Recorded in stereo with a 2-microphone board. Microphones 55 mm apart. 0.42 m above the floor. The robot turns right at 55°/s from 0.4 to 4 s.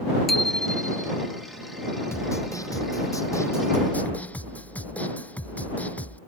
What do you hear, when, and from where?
0.3 s a bicycle bell: 5° left; by 1.1 s 45° left
2.1 s a snare drum: 50° left; by 6.2 s 155° left